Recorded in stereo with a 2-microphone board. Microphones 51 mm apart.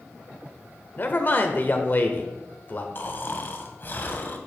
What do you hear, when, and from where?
1.0 s a man speaking: 40° left (ahead or behind), 1.0 m
3.0 s snoring: 45° left (ahead or behind), 1.0 m